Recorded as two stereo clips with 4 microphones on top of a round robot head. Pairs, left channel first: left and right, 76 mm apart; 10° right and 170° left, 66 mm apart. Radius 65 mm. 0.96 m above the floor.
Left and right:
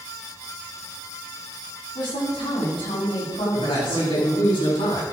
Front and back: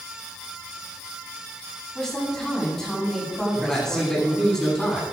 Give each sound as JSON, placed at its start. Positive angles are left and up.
{"t": 1.9, "sound": "a woman speaking", "azimuth_deg": 70, "distance_m": 7.5}
{"t": 3.5, "sound": "a man speaking", "azimuth_deg": 70, "distance_m": 7.5}